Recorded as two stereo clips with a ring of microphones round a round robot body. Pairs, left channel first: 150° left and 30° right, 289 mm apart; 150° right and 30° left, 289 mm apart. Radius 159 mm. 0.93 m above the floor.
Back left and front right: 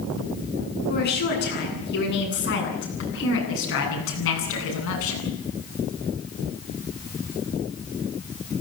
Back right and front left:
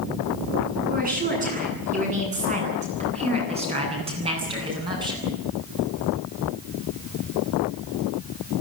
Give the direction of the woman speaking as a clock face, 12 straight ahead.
9 o'clock.